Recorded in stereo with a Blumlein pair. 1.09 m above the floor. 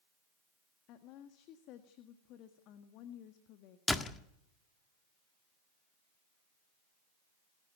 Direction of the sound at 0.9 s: 40° left.